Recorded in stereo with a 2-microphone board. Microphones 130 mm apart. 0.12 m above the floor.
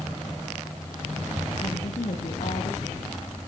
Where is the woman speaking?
60° left (ahead or behind), 5.5 m; by 3.2 s 70° left (ahead or behind), 7 m.